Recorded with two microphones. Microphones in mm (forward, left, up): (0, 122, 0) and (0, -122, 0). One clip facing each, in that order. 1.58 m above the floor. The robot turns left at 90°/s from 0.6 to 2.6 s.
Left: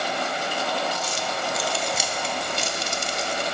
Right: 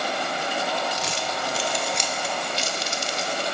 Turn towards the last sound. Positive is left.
turn(degrees=55)  # may be behind; listen again after turning